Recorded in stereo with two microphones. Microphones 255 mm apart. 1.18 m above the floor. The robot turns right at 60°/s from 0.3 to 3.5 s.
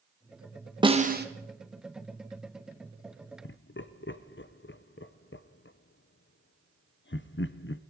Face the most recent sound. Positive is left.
turn(degrees=50)  # may be behind; listen again after turning